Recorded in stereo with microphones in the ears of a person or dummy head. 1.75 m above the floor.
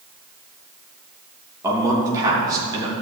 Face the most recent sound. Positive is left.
turn(degrees=-25)  # may be behind; listen again after turning